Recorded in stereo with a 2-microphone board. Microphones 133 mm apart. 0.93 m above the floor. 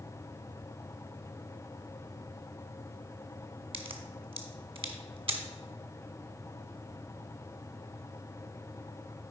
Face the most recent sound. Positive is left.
turn(degrees=-45)  # may be behind; listen again after turning